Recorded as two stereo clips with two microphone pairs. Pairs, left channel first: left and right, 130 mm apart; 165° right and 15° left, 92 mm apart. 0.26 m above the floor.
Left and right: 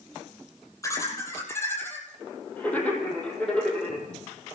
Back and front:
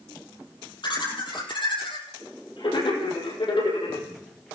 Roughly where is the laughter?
Behind left.